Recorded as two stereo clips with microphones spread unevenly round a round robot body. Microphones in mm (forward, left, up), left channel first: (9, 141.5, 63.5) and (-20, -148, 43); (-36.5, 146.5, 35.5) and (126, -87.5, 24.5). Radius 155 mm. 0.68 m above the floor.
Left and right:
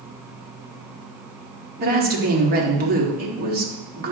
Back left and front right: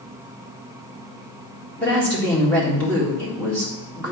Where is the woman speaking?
150° right, 1.6 m.